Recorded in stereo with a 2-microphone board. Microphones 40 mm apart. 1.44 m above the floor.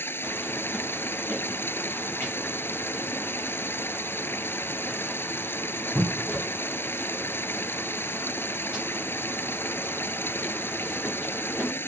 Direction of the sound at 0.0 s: 60° left (ahead or behind).